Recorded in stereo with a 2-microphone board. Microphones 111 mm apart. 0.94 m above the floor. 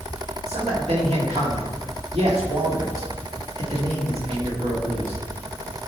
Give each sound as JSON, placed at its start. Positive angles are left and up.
{"t": 0.5, "sound": "a man speaking", "side_deg": -70, "distance_m": 2.0}